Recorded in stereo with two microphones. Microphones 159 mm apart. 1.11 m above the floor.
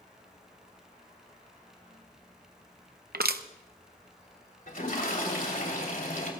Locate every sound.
3.1 s crushing: 75° right (ahead or behind), 0.7 m
4.7 s a toilet flushing: 65° left (ahead or behind), 3 m